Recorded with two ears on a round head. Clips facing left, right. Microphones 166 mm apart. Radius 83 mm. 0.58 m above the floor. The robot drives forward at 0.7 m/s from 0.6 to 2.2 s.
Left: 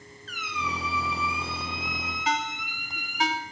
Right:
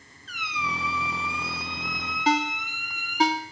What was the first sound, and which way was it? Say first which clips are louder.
A squeak: even; centre (ahead or behind).